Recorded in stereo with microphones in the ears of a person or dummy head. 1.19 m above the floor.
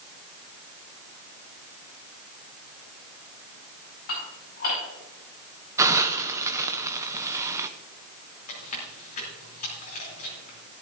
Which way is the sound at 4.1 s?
50° left (ahead or behind).